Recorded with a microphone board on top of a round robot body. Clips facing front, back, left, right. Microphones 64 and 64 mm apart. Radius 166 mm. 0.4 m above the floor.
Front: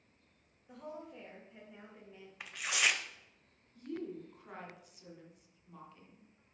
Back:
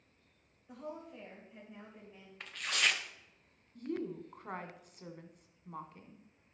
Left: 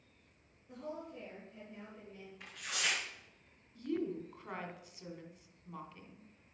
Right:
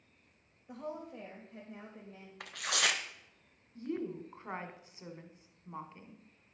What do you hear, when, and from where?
0.7 s a woman speaking: 85° right, 3.5 m
2.4 s tearing paper: 80° right, 1.1 m
3.8 s a woman speaking: 150° right, 2 m